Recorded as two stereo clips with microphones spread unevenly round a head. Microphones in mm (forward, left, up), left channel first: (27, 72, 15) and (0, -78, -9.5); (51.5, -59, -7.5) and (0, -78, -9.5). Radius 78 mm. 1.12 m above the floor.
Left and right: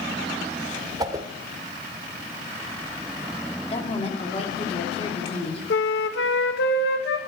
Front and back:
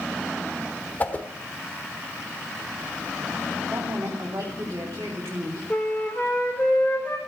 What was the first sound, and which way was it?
A whoosh, 35° right.